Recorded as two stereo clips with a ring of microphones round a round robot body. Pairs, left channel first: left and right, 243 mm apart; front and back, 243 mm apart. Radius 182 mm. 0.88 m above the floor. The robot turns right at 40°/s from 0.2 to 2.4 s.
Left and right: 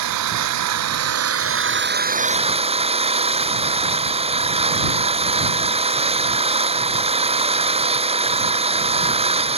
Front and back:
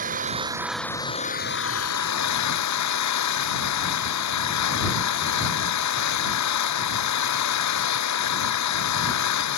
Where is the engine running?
115° right; by 9.6 s 25° right.